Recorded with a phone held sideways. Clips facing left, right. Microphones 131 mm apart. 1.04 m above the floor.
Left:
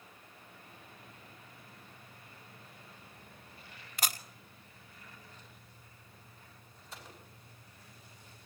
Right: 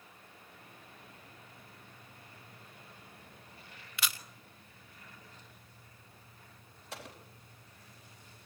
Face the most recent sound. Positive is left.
turn(degrees=-75)  # may be behind; listen again after turning